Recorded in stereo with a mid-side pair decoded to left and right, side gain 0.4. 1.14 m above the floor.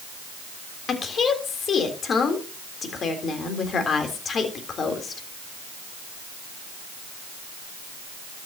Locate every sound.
0.9 s a woman speaking: 55° left, 3.5 m